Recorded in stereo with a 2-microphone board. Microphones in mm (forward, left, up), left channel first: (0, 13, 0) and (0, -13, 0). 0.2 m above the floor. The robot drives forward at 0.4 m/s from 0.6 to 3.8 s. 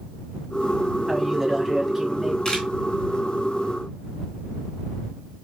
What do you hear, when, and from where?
1.1 s a man speaking: 10° right (ahead or behind), 1.0 m; by 2.4 s 5° right (ahead or behind), 1.3 m
2.5 s a camera shutter: 20° left (ahead or behind), 1.9 m